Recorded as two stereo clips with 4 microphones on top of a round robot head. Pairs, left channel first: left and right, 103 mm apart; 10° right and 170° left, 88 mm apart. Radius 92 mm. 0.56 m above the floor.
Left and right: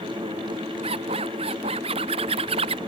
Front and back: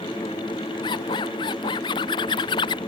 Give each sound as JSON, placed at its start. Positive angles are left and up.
{"t": 0.8, "sound": "a zipper", "azimuth_deg": -50}